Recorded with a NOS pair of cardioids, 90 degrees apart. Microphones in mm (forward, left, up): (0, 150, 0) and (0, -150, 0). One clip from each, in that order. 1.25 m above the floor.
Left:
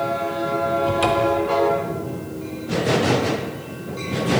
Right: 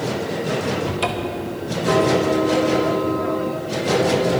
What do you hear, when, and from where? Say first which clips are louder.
0.9 s a cupboard door: left 5 dB; 10° right, 1.8 m